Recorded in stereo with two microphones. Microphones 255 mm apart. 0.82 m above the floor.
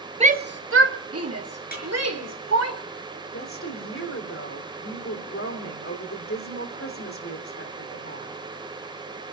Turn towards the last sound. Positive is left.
turn(degrees=55)  # may be behind; listen again after turning